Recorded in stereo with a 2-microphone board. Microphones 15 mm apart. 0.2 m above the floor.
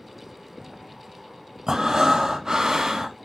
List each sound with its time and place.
1.7 s breathing: 45° right (ahead or behind), 0.7 m